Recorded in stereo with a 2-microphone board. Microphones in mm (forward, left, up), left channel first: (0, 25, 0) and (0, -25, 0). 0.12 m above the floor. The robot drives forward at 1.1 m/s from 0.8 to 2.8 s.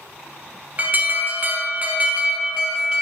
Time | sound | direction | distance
0.8 | an alarm | 35° right (ahead or behind) | 1.2 m